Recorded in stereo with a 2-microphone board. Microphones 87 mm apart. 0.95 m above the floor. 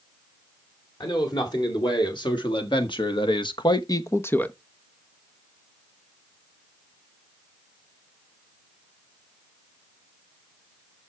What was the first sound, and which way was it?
A man speaking, 60° left (ahead or behind).